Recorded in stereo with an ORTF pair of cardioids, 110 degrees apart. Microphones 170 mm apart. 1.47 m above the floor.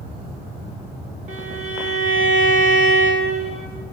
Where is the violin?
45° right, 1.2 m.